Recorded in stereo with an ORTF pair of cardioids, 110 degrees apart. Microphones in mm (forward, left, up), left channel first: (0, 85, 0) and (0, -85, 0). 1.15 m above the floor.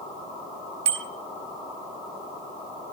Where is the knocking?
I don't hear knocking.